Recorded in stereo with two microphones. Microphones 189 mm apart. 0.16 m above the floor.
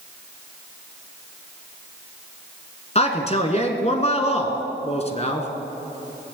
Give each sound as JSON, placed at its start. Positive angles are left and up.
{"t": 3.0, "sound": "a man speaking", "side_deg": 35, "distance_m": 2.0}